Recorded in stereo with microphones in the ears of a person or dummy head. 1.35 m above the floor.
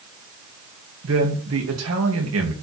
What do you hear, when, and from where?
1.0 s a man speaking: 80° right, 2.5 m